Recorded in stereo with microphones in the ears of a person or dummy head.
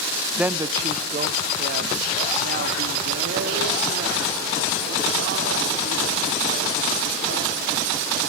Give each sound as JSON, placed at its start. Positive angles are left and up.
{"t": 0.4, "sound": "a woman speaking", "side_deg": -5, "distance_m": 0.5}